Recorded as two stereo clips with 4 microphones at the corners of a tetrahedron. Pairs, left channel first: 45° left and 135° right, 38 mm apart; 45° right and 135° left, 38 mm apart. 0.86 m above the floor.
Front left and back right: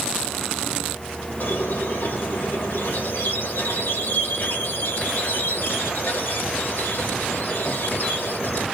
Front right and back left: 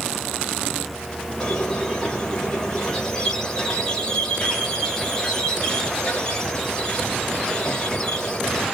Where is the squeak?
30° left, 1.6 m.